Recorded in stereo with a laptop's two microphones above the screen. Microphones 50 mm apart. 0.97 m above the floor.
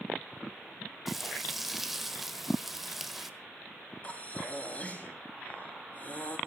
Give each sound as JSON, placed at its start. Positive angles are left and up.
{"t": 1.1, "sound": "frying", "side_deg": -5, "distance_m": 1.5}
{"t": 4.0, "sound": "breathing", "side_deg": 30, "distance_m": 3.0}